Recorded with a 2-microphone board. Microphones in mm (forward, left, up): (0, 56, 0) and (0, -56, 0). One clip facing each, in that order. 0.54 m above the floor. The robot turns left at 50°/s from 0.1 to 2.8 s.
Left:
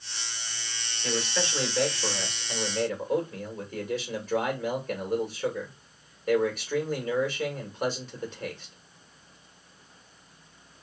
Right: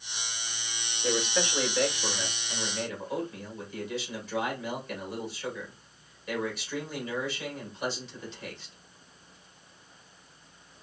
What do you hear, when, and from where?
1.0 s a man speaking: 150° right, 2.5 m; by 8.8 s 120° left, 2.5 m